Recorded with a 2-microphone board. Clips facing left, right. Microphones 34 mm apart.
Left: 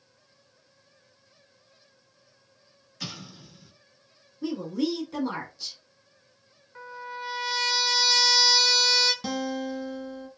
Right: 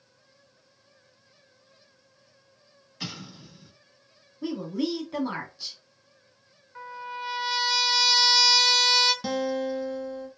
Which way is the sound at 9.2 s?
5° right (ahead or behind).